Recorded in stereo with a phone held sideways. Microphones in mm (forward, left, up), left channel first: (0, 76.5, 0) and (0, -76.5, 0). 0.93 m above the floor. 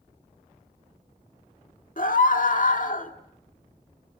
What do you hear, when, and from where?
2.0 s a scream: 60° left (ahead or behind), 1.8 m